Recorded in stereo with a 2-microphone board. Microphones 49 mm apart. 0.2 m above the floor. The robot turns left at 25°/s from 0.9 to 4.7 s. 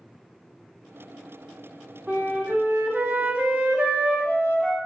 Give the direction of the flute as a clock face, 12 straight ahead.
2 o'clock.